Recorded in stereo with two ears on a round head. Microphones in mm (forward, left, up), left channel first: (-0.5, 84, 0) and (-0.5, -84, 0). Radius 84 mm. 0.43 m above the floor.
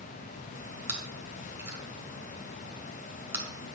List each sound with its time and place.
0.9 s chewing: 10° right (ahead or behind), 1.2 m